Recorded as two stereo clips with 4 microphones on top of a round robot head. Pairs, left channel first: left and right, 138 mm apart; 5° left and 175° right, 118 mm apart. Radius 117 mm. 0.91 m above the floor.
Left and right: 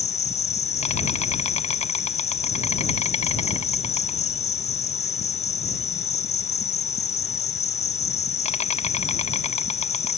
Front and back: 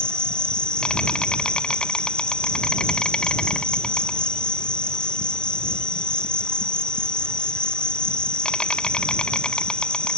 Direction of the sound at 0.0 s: 85° left.